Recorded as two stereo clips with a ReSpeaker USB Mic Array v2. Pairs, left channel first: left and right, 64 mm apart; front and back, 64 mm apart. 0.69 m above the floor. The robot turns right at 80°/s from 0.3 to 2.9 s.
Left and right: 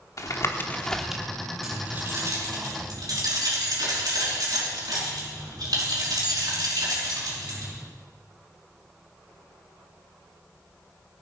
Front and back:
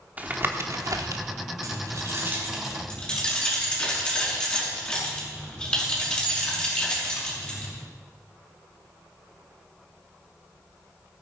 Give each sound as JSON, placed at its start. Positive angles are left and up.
{"t": 0.2, "sound": "tapping", "azimuth_deg": 120, "distance_m": 1.1}
{"t": 1.6, "sound": "keys jangling", "azimuth_deg": -175, "distance_m": 5.0}